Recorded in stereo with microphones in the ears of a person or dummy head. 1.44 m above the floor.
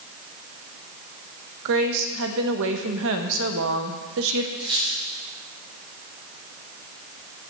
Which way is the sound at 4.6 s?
25° right (ahead or behind).